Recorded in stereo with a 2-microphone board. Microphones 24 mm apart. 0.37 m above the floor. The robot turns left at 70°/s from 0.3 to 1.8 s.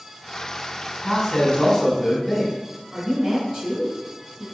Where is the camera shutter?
I don't hear a camera shutter.